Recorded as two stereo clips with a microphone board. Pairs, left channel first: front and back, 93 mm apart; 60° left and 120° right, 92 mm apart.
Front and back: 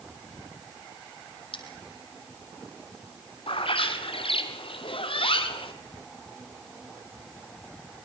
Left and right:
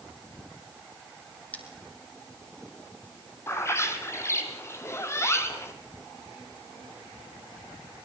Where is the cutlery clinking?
15° right, 3 m.